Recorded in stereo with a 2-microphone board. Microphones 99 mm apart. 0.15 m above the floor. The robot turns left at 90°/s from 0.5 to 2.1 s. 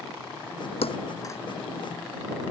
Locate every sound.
0.8 s a thud: 75° left (ahead or behind); by 1.4 s 20° left (ahead or behind)